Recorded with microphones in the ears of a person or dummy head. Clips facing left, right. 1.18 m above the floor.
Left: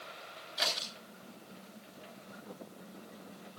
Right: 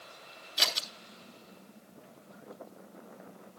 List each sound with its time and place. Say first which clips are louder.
0.6 s scissors: even; 40° right (ahead or behind), 3 m